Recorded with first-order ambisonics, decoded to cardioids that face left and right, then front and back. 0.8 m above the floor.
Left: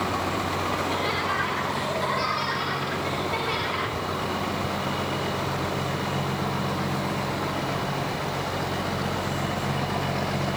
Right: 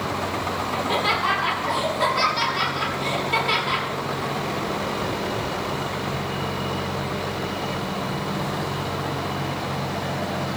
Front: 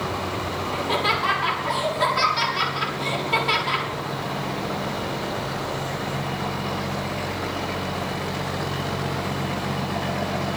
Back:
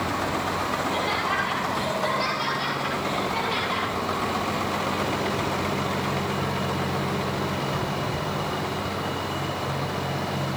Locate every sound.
0.7 s laughter: 35° right, 7.5 m